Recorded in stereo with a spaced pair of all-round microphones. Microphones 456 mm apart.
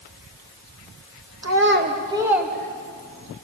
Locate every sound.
1.4 s a child speaking: 35° right (ahead or behind), 1.8 m; by 3.4 s 15° left (ahead or behind), 3 m